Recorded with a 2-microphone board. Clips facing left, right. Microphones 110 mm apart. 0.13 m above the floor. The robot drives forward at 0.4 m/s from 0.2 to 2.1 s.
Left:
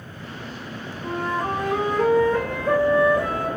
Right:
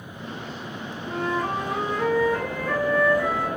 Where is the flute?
55° left (ahead or behind), 5.5 m.